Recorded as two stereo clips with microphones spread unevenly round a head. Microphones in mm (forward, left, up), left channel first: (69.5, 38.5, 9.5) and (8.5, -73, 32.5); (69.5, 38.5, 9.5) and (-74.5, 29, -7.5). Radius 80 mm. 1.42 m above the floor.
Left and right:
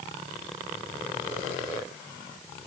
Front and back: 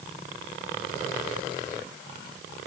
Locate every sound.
Only background noise.